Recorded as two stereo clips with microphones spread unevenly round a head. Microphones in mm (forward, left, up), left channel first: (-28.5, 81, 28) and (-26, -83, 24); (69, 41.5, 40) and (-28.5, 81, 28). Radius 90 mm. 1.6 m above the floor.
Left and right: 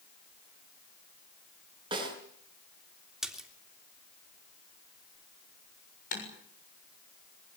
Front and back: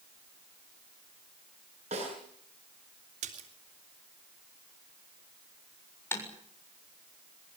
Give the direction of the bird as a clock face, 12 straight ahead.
I don't hear a bird.